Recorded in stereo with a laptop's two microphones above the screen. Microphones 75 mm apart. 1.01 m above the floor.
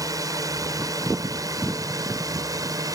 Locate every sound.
0.0 s a drone: 55° right (ahead or behind)